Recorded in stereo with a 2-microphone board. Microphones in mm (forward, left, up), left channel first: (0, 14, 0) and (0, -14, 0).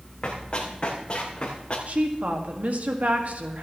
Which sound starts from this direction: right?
A woman speaking, at 1.9 s.